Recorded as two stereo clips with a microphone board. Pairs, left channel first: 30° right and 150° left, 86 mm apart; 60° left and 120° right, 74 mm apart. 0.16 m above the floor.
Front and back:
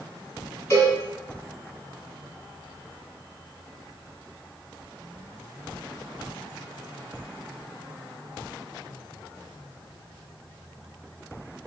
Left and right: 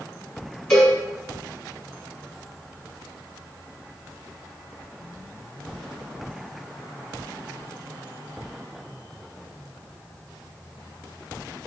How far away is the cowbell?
About 1.3 m.